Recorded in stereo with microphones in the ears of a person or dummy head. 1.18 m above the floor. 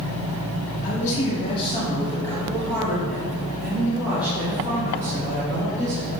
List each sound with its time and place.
0.8 s a man speaking: 50° left (ahead or behind), 2.5 m; by 6.1 s 20° right (ahead or behind), 6 m